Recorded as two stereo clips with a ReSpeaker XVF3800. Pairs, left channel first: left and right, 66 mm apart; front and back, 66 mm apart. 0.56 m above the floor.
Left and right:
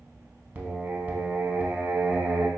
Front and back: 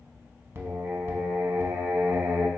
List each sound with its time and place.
0.6 s singing: 140° right, 0.6 m